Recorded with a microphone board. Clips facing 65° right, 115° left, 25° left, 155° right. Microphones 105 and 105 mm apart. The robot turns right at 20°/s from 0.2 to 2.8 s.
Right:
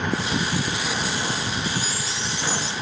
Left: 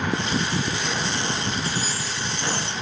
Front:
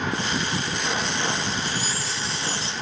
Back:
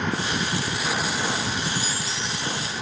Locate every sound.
1.6 s a chime: 65° left; by 2.7 s 85° left